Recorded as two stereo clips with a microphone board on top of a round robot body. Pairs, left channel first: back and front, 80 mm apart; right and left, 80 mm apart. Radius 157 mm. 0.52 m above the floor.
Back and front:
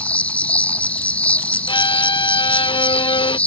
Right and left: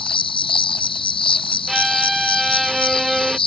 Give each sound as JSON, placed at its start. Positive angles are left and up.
{"t": 0.0, "sound": "an insect", "azimuth_deg": -105}
{"t": 1.7, "sound": "a violin", "azimuth_deg": 175}